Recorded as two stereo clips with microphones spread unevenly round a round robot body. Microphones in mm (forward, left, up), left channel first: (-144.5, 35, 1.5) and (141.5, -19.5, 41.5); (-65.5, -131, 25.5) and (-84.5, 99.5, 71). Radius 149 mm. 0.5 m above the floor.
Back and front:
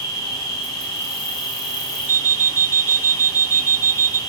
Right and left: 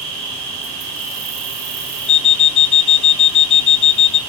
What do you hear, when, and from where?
0.0 s an insect: 95° left, 4 m
2.1 s an alarm clock: 95° right, 0.6 m